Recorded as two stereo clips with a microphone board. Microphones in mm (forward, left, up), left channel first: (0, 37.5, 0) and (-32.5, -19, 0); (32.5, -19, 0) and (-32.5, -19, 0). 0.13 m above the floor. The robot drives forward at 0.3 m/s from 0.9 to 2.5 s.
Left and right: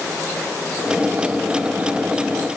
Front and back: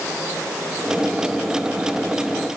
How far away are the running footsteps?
I don't hear running footsteps.